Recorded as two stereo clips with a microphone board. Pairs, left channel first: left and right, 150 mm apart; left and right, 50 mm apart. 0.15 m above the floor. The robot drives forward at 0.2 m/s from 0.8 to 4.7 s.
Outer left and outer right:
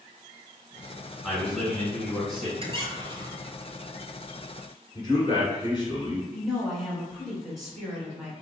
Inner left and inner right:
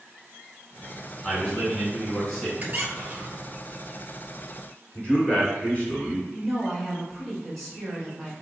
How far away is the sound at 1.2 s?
About 2.0 m.